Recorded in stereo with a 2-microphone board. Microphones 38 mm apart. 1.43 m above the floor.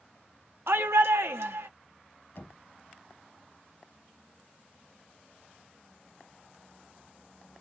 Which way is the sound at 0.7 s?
80° right.